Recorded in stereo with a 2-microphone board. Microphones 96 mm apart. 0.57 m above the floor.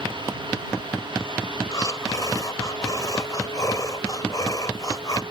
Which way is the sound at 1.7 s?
40° left (ahead or behind).